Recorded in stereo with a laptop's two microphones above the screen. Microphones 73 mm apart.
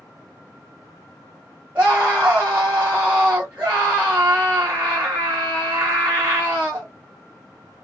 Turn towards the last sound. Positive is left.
turn(degrees=-20)  # may be behind; listen again after turning